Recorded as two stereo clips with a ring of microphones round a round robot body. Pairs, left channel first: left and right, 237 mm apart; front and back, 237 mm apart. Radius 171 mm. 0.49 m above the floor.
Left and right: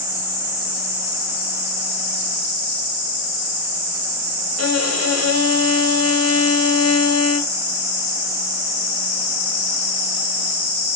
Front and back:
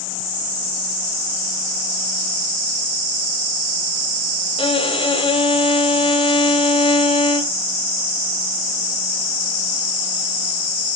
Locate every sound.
4.6 s a violin: 70° left, 1.7 m